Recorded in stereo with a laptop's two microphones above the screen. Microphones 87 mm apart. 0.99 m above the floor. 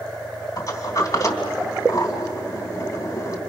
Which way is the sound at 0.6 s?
45° left (ahead or behind).